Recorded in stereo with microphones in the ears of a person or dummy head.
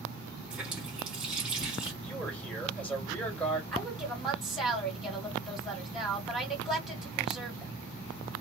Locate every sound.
0.5 s a running tap: 5° right (ahead or behind), 1.0 m
2.0 s a man speaking: 10° left (ahead or behind), 1.7 m
3.7 s a woman speaking: 5° left (ahead or behind), 1.8 m